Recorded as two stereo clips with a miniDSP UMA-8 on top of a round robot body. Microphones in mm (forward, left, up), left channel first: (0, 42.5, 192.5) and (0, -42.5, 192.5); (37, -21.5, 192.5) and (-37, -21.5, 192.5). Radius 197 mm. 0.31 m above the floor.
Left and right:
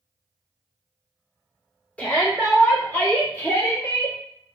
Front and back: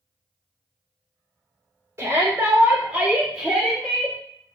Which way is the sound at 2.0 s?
155° left.